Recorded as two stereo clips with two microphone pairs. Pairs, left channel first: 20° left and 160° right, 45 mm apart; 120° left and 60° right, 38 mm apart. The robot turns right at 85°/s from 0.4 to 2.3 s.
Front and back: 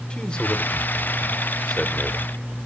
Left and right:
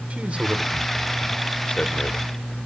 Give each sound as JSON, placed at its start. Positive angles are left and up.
{"t": 0.1, "sound": "a man speaking", "azimuth_deg": -35, "distance_m": 1.1}